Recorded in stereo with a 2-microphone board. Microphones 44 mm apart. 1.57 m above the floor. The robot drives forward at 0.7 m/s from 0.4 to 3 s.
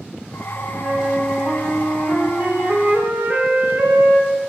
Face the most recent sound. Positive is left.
turn(degrees=-45)  # may be behind; listen again after turning